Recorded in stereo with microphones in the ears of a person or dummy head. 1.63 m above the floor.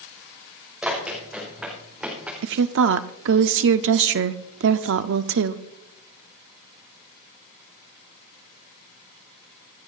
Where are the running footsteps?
10° right (ahead or behind), 5.5 m.